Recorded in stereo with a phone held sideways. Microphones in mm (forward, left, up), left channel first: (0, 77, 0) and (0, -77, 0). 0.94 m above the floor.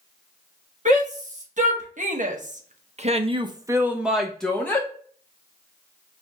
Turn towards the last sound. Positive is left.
turn(degrees=15)  # may be behind; listen again after turning